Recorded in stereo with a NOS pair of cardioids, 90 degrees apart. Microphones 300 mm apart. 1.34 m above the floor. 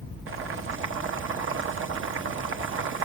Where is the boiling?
45° right, 1.1 m.